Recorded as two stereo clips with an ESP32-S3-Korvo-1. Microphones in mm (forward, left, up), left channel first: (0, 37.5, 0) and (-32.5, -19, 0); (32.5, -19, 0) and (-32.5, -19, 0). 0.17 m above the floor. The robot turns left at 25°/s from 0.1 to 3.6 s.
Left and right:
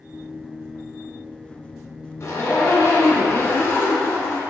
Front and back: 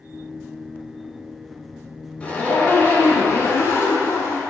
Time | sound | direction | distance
2.2 | a zipper | 60° left | 1.5 m